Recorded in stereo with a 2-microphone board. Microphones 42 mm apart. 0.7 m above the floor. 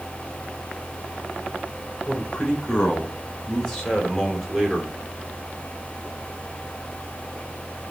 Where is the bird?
I don't hear a bird.